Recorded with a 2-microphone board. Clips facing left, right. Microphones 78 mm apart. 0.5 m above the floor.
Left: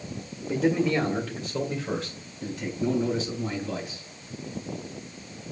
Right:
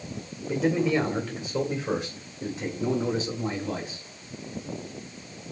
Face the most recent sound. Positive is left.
turn(degrees=-50)  # may be behind; listen again after turning